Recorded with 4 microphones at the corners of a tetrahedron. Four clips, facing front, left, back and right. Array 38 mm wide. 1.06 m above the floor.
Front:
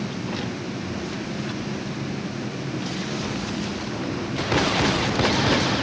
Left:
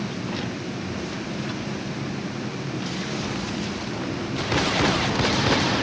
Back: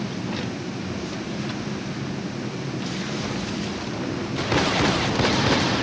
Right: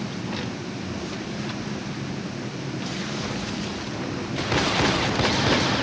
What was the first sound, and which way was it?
Only background noise.